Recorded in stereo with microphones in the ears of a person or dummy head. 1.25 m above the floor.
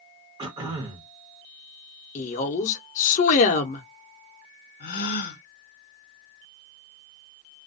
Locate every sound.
0.4 s throat clearing: 25° right (ahead or behind), 1.1 m
2.1 s a woman speaking: 40° left (ahead or behind), 0.6 m
4.8 s a gasp: 50° left (ahead or behind), 0.9 m